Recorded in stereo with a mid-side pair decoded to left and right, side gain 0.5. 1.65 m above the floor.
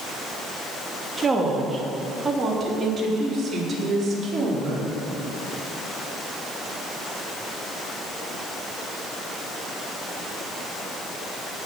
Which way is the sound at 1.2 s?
30° right.